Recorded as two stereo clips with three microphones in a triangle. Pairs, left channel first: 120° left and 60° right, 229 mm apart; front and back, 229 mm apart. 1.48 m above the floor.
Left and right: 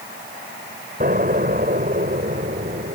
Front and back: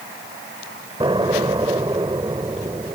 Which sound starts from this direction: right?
An explosion, at 1.0 s.